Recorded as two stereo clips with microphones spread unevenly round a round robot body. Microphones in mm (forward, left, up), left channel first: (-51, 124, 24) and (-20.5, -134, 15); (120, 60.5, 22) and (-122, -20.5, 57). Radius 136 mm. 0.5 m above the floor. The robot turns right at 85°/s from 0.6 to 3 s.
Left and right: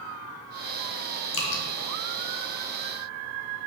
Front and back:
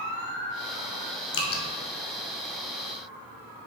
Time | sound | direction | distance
1.3 | dripping | 55° left | 1.4 m